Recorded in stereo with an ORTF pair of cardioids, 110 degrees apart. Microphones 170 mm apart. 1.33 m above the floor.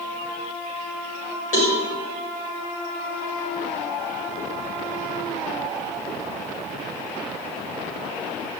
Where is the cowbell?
50° left, 6.5 m.